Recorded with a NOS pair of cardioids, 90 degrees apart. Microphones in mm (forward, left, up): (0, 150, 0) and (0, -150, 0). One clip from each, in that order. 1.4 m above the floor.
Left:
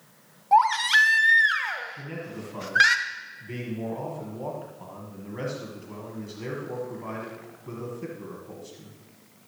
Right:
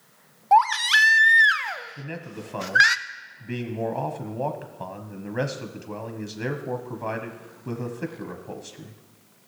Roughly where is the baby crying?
Ahead right.